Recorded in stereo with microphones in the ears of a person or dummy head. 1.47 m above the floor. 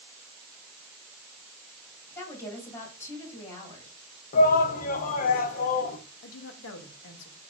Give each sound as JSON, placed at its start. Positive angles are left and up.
{"t": 2.1, "sound": "a woman speaking", "side_deg": 15, "distance_m": 2.5}
{"t": 4.3, "sound": "a shout", "side_deg": 45, "distance_m": 0.5}
{"t": 6.2, "sound": "a woman speaking", "side_deg": 75, "distance_m": 0.9}